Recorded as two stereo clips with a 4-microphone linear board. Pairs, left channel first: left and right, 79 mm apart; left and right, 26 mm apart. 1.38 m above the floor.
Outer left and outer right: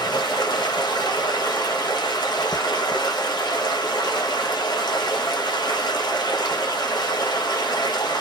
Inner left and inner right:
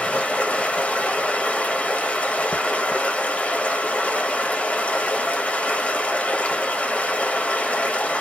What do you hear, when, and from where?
0.0 s running water: 65° left (ahead or behind), 1.1 m